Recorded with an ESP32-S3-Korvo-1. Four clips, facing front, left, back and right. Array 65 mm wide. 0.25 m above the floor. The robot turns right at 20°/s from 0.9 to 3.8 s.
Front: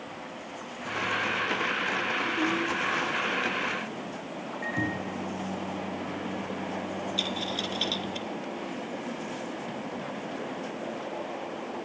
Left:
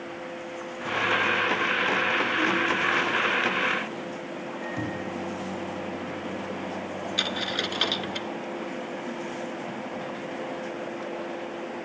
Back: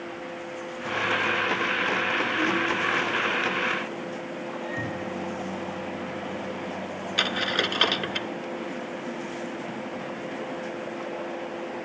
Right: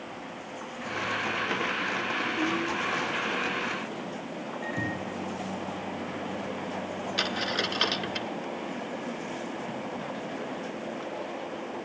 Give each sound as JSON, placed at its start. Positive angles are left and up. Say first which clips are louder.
{"t": 4.6, "sound": "a microwave", "louder": "even, front 3 dB", "azimuth_deg": 15, "distance_m": 6.0}
{"t": 7.2, "sound": "a dropped coin", "louder": "right 1 dB, back 6 dB", "azimuth_deg": -175, "distance_m": 0.6}